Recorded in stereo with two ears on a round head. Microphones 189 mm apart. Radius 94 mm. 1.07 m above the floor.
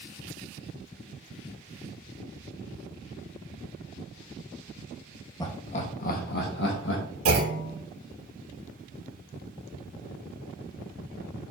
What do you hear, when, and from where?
5.4 s laughter: 20° left (ahead or behind), 1.0 m; by 7.0 s 60° left (ahead or behind), 1.7 m
7.2 s a clunk: 75° right (ahead or behind), 2.5 m